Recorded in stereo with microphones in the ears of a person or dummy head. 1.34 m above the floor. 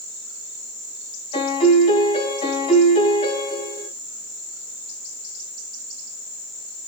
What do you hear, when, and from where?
1.3 s a piano: 35° left (ahead or behind), 6.5 m